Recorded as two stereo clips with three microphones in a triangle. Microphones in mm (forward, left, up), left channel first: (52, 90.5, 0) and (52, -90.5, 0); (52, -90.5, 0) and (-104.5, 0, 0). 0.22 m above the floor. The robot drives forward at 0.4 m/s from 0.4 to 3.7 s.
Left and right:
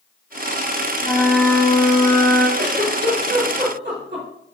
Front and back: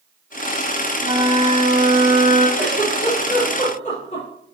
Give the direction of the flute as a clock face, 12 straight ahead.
7 o'clock.